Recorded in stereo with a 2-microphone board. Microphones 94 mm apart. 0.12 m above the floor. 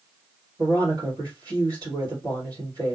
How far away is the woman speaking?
About 2.5 m.